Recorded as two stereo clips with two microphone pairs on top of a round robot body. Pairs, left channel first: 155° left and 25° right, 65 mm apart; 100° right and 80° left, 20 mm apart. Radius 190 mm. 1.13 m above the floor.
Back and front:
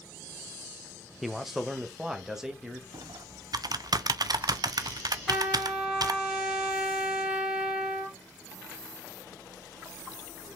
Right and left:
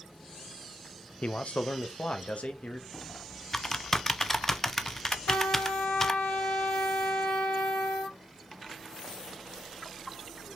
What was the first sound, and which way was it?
A man speaking, 115° right.